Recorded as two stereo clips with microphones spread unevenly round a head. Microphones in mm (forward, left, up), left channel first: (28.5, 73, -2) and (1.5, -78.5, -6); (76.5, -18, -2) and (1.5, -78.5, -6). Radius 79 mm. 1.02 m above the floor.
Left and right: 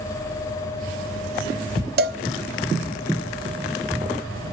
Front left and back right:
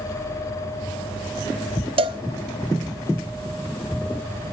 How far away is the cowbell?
About 0.8 m.